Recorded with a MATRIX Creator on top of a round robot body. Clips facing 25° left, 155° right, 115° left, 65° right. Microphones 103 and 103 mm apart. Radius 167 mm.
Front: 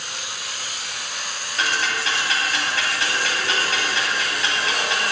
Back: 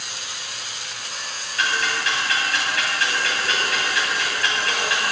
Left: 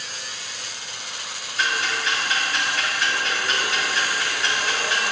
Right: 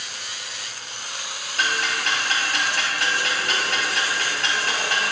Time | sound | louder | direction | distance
1.6 | ticking | even, even | 40° right | 2 m